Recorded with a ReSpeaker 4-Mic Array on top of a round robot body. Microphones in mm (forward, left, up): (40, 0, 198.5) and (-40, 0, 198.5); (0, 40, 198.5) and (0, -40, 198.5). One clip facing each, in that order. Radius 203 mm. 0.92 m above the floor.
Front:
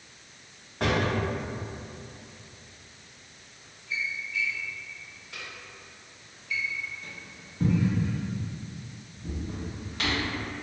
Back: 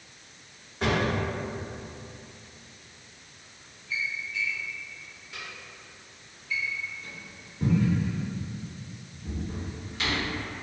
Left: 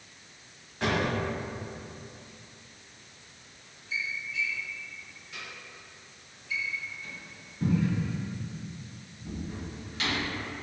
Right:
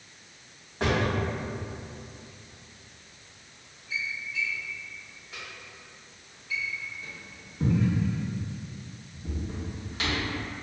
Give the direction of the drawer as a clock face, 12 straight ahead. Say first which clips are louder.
Even, right 1 dB; 1 o'clock.